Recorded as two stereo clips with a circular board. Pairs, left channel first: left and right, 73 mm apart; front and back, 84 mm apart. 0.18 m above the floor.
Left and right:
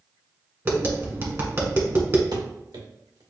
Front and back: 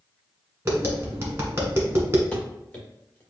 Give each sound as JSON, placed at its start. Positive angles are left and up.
{"t": 0.7, "sound": "tapping", "azimuth_deg": -130, "distance_m": 1.3}
{"t": 2.3, "sound": "running footsteps", "azimuth_deg": -75, "distance_m": 2.0}